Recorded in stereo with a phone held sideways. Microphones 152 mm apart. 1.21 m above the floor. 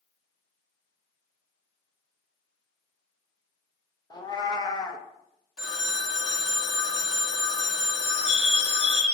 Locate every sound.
4.1 s a cat meowing: 30° left (ahead or behind), 0.6 m
5.6 s a phone ringing: 5° right (ahead or behind), 1.1 m
8.0 s a bird: 45° left (ahead or behind), 1.1 m